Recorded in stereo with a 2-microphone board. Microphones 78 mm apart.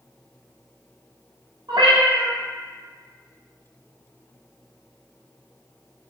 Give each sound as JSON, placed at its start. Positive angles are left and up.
{"t": 1.7, "sound": "a cat meowing", "side_deg": -80, "distance_m": 1.3}